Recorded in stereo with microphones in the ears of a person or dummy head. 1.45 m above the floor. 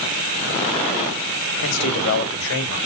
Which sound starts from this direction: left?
A man speaking, at 1.6 s.